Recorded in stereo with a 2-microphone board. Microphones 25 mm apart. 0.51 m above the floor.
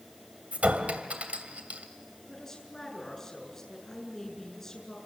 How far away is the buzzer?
No buzzer in this recording.